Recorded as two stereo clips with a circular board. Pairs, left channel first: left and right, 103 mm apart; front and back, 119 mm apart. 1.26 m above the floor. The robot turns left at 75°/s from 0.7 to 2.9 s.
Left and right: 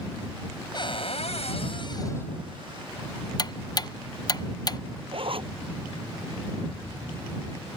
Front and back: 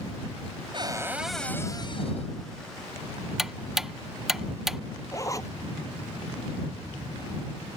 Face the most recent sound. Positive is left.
turn(degrees=-60)